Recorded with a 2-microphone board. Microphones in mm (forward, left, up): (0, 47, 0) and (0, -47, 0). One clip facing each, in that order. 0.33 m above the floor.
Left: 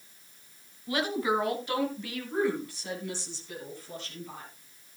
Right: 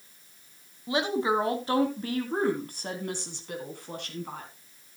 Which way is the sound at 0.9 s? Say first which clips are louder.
Right 2 dB; 20° right (ahead or behind).